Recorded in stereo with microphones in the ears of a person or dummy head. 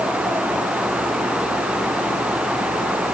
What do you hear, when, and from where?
Only background noise.